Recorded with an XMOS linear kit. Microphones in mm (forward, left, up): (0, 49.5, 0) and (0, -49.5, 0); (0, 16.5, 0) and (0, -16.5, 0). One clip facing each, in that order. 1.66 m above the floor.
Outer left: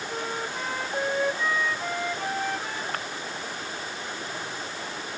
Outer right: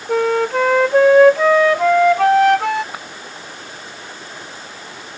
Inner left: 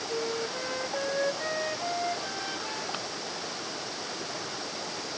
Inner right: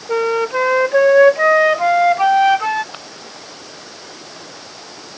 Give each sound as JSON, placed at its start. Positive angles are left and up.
{"t": 0.1, "sound": "a flute", "side_deg": -85}
{"t": 2.9, "sound": "breaking glass", "side_deg": -10}